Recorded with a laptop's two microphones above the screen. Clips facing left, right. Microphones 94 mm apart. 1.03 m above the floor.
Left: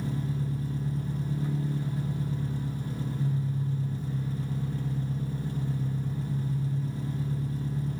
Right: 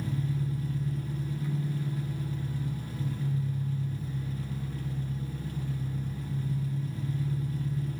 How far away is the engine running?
About 1.5 m.